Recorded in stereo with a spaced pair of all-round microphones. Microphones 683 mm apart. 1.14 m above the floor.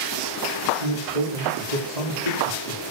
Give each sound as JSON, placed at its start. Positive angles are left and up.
{"t": 0.8, "sound": "a man speaking", "side_deg": -70, "distance_m": 3.0}